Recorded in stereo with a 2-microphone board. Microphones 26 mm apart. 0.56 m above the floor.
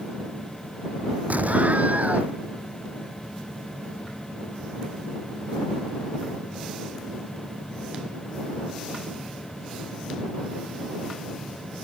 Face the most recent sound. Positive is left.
turn(degrees=-75)  # may be behind; listen again after turning